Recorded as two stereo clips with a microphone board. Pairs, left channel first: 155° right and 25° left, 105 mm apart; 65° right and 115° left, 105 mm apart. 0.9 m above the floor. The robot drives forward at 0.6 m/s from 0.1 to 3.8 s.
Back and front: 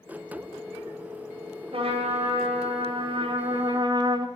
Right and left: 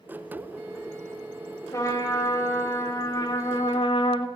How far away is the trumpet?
About 1.7 m.